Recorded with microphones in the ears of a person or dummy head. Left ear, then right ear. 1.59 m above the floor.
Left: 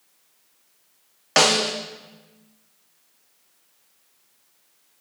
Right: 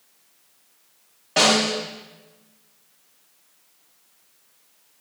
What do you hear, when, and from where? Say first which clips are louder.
1.4 s a snare drum: even; 60° left (ahead or behind), 0.6 m